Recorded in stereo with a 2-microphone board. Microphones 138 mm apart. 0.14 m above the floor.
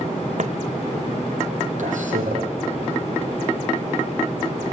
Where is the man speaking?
60° right (ahead or behind), 5.5 m.